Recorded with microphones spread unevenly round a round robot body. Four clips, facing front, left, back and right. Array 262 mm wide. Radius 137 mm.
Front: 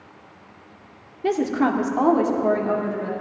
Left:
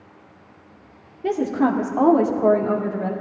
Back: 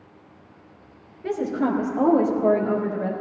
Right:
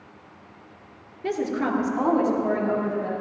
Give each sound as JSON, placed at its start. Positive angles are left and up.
{"t": 1.2, "sound": "a woman speaking", "azimuth_deg": 30, "distance_m": 1.8}